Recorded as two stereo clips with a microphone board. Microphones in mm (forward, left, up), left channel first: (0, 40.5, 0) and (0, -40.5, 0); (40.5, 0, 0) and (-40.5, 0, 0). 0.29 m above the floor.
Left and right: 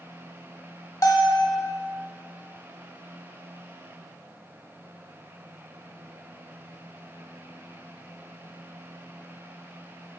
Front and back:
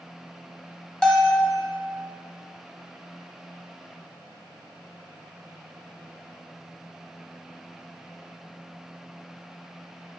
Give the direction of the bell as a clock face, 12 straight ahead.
9 o'clock.